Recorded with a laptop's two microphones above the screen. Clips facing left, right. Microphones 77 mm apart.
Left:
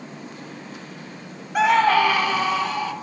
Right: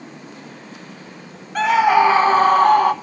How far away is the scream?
About 0.6 m.